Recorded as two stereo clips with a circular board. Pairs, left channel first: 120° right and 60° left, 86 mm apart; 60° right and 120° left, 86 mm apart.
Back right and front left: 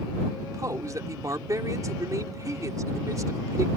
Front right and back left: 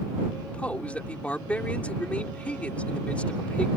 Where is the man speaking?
15° left.